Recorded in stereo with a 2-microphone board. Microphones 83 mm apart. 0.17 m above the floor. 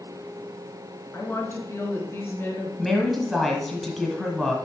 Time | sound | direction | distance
1.1 | a woman speaking | 25° left (ahead or behind) | 2 m
2.8 | a woman speaking | centre (ahead or behind) | 1.4 m